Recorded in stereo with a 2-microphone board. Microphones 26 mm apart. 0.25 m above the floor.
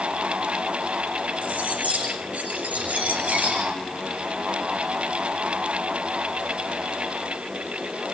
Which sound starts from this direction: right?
Cutlery clinking, at 1.4 s.